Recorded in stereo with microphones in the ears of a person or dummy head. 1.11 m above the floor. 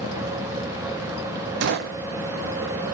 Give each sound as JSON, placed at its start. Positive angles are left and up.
{"t": 1.6, "sound": "a gunshot", "side_deg": -65, "distance_m": 1.0}